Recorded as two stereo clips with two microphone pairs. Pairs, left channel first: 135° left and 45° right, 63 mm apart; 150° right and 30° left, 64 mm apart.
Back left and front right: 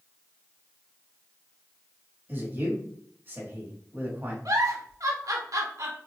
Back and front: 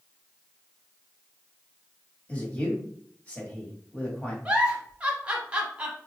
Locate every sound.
2.3 s a man speaking: 90° right, 1.3 m
4.5 s a giggle: 40° right, 0.8 m